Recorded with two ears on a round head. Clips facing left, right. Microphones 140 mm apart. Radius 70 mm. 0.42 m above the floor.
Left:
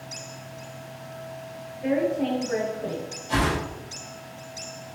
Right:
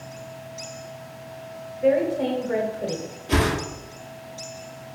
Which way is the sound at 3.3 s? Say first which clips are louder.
Right 2 dB; 65° right (ahead or behind).